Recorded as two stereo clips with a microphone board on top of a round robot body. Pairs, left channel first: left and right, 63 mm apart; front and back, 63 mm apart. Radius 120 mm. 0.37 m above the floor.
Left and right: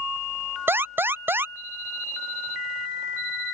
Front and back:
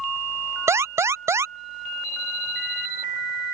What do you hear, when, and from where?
0.7 s an alarm: 140° right